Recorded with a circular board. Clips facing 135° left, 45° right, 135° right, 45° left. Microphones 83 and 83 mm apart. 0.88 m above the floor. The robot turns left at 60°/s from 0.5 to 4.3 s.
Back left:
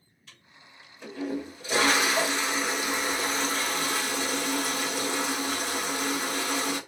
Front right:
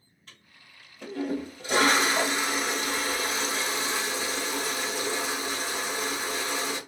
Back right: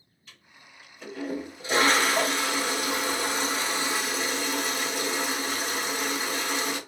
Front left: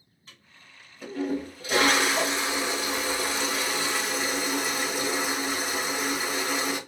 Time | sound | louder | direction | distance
0.3 | a toilet flushing | back left 1 dB, back right 1 dB | 5° right | 1.2 m